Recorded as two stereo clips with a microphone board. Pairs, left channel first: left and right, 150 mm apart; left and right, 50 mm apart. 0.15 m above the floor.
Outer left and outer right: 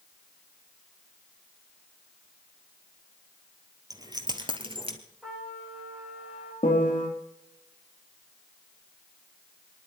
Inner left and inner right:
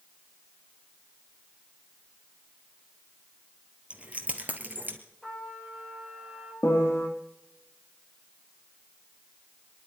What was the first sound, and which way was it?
Keys jangling, 25° right (ahead or behind).